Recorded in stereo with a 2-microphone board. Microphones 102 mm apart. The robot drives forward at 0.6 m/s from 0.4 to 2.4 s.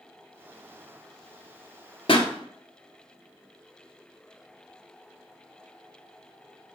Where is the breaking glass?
No breaking glass in this recording.